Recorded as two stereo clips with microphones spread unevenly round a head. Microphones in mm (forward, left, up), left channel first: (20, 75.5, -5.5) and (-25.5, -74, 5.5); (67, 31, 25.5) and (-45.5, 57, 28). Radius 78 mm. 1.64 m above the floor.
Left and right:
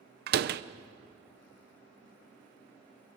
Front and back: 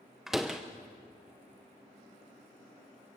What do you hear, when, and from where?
0.3 s a door slam: 105° right, 0.8 m